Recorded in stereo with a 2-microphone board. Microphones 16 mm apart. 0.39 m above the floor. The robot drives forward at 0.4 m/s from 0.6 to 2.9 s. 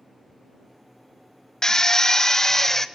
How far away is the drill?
About 0.6 m.